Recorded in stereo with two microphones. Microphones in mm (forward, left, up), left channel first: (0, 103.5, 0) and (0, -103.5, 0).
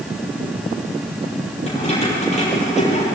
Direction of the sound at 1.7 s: 35° left (ahead or behind).